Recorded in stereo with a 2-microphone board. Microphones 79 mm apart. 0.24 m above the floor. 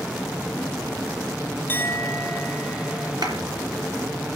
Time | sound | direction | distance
1.7 | a clink | 25° left (ahead or behind) | 1.3 m
3.2 | a clap | 70° right (ahead or behind) | 4 m